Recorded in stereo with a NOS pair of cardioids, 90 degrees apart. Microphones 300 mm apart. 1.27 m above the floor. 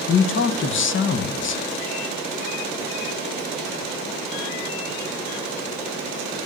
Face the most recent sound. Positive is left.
turn(degrees=45)